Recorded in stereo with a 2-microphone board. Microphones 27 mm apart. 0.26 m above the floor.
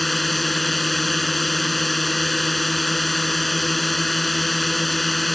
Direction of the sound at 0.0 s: Centre (ahead or behind).